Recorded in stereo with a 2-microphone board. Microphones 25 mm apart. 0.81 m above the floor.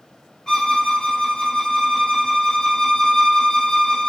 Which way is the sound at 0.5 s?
25° left (ahead or behind).